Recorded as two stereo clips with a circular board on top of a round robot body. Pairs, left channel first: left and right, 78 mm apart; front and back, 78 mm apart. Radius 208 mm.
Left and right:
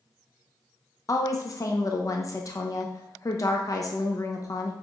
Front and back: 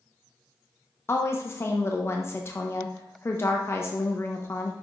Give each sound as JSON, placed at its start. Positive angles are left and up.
{"t": 1.1, "sound": "a woman speaking", "azimuth_deg": 50, "distance_m": 1.0}